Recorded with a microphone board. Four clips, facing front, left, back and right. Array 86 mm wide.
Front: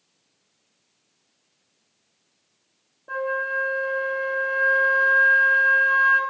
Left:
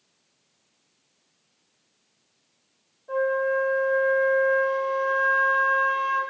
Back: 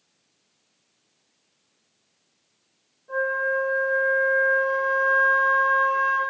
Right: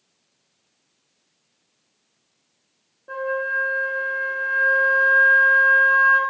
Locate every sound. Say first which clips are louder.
3.1 s a flute: left 2 dB, back 2 dB; 35° right, 1.0 m